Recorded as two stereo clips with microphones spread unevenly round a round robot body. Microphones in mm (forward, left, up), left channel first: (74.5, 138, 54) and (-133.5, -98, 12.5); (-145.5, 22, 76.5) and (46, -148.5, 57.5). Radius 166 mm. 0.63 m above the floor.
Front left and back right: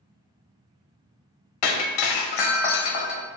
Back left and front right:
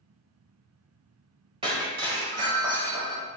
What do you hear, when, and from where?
1.6 s breaking glass: 35° left, 0.6 m